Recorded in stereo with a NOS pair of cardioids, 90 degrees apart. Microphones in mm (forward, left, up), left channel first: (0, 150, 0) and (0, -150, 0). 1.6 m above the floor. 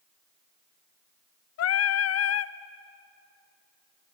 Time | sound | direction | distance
1.6 | singing | 55° left | 0.7 m